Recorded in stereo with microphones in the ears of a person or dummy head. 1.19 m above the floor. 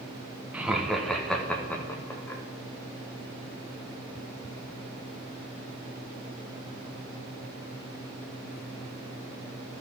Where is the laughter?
5° right (ahead or behind), 0.9 m; by 2.4 s 15° left (ahead or behind), 1.7 m.